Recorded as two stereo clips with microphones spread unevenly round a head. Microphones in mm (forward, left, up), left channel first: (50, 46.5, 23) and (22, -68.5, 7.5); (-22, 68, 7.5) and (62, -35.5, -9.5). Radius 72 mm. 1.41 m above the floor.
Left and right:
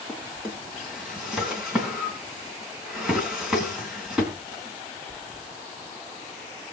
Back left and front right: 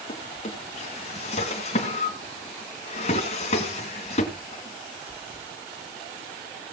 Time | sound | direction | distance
0.1 | a drawer | 165° left | 3 m